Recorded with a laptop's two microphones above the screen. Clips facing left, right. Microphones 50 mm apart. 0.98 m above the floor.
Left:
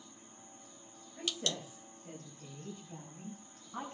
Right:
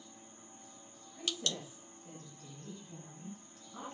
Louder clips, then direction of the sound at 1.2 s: Left 1 dB; 25° left (ahead or behind).